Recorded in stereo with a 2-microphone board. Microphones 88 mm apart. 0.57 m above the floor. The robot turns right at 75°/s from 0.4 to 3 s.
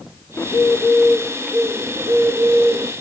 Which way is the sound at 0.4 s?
25° left (ahead or behind).